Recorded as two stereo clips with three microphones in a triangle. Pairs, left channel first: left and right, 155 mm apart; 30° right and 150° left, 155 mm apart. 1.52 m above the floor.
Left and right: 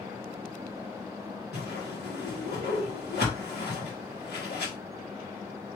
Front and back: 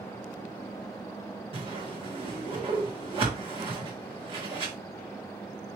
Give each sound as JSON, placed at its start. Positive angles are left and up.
{"t": 1.5, "sound": "a whoosh", "azimuth_deg": 95, "distance_m": 2.0}